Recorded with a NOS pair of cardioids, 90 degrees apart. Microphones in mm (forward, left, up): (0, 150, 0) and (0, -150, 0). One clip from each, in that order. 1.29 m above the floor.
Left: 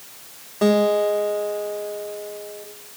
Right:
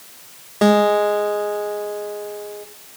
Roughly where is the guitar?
Ahead right.